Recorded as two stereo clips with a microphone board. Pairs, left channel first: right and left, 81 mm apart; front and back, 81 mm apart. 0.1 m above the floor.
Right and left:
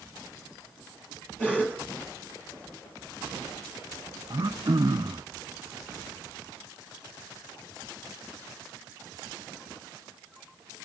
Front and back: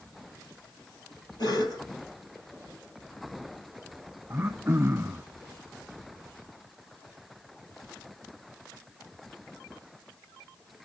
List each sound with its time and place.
1.4 s a cough: 20° right, 2.5 m
4.3 s throat clearing: 125° left, 0.9 m